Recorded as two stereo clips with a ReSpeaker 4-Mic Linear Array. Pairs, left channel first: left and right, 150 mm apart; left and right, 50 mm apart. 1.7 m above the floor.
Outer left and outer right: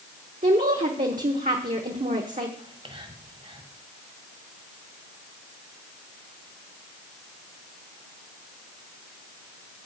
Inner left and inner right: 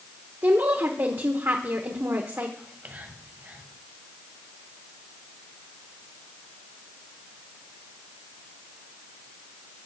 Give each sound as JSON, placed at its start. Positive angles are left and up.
{"t": 0.4, "sound": "a woman speaking", "side_deg": -60, "distance_m": 1.0}
{"t": 2.6, "sound": "whispering", "side_deg": -40, "distance_m": 1.7}